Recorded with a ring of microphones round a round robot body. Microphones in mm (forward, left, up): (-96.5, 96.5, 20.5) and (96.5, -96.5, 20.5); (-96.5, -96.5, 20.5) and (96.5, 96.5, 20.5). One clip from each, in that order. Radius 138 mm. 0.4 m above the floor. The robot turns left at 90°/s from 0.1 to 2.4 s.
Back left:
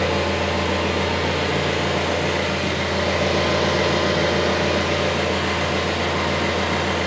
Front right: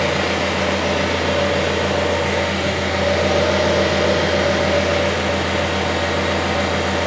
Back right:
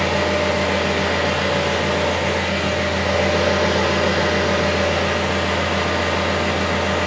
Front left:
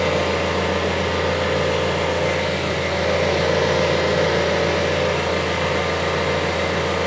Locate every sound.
0.0 s an engine running: 30° right, 1.3 m; by 7.1 s 125° left, 1.3 m